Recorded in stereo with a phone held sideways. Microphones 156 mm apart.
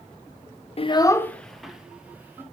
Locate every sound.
0.8 s a child speaking: 40° left (ahead or behind), 0.6 m; by 2.4 s 15° right (ahead or behind), 1.6 m